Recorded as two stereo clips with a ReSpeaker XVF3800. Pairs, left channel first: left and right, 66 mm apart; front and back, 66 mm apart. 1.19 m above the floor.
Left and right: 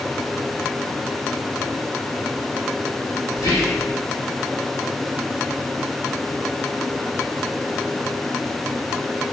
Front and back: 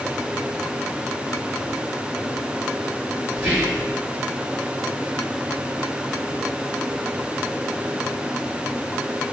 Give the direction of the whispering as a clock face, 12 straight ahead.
8 o'clock.